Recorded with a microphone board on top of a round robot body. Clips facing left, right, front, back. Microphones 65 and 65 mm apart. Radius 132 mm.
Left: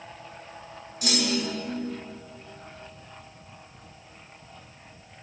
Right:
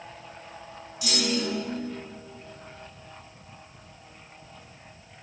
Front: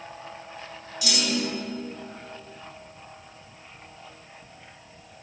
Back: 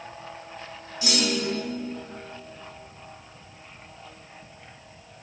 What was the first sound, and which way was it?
A clunk, 130° left.